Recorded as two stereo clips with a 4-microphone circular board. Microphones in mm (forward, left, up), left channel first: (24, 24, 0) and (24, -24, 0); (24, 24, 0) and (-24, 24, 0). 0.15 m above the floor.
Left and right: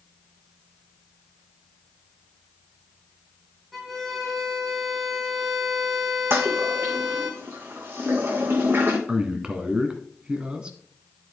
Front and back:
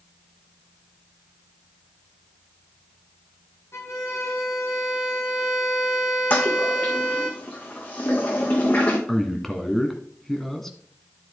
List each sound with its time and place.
3.7 s a violin: straight ahead, 1.8 m
6.3 s a toilet flushing: 45° right, 2 m
9.1 s a man speaking: 75° right, 1.4 m